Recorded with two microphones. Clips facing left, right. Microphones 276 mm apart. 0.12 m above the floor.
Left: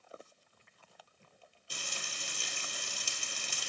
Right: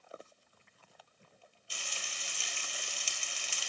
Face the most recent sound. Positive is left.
turn(degrees=45)  # may be behind; listen again after turning